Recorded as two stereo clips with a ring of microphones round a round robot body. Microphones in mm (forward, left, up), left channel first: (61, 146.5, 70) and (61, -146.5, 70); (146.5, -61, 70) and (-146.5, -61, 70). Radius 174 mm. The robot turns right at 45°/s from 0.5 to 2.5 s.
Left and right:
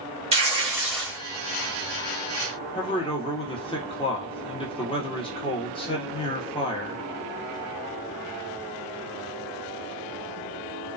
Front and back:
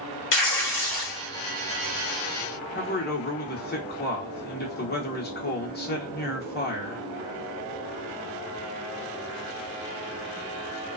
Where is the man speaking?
30° left, 1.0 m.